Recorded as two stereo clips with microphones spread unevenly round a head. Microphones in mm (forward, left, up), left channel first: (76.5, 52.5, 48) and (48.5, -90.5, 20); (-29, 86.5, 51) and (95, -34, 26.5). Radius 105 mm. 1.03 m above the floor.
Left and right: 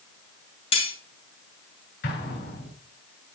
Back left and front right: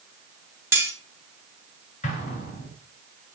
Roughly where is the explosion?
Left.